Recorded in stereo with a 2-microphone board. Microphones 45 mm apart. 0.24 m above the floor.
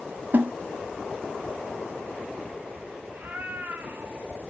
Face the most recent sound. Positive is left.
turn(degrees=-50)  # may be behind; listen again after turning